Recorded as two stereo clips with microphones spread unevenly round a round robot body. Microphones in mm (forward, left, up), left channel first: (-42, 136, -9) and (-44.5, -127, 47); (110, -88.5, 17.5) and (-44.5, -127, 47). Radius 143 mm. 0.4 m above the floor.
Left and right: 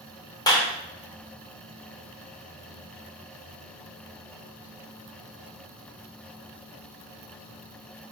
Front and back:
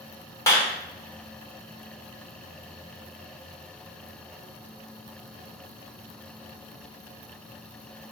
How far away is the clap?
About 0.7 m.